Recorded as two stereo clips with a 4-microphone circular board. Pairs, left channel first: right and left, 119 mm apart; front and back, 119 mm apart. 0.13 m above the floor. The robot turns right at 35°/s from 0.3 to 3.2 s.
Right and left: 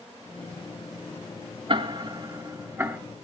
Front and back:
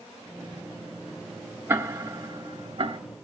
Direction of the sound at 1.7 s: 115° left.